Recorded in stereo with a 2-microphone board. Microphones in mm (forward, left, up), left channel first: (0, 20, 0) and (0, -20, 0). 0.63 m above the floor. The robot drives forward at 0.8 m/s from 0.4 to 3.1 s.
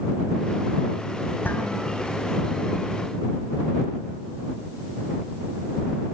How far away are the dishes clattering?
About 6 m.